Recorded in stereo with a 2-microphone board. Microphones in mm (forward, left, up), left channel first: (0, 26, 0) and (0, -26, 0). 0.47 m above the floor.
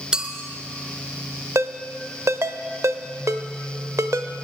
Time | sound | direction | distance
0.1 | a clink | 15° right (ahead or behind) | 1.0 m
1.6 | a ringtone | 65° right (ahead or behind) | 0.6 m